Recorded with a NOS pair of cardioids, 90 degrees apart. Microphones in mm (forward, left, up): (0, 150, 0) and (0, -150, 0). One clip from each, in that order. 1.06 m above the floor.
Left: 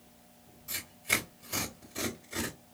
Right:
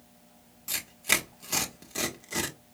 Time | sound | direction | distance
0.7 | tearing paper | 60° right | 1.1 m